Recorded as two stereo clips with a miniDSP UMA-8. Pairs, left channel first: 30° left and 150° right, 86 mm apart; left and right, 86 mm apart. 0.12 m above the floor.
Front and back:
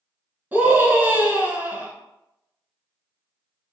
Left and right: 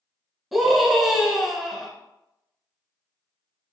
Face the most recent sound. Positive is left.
turn(degrees=-175)